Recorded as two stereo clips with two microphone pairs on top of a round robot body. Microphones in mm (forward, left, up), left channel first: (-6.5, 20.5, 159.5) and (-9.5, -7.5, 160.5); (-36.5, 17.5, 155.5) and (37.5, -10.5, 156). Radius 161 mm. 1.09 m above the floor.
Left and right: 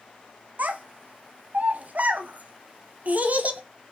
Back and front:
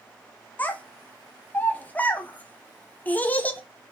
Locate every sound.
0.6 s a child speaking: 130° right, 0.6 m